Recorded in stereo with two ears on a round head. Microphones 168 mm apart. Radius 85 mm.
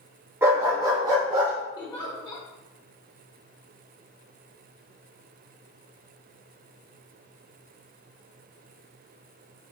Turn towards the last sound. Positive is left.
turn(degrees=25)  # may be behind; listen again after turning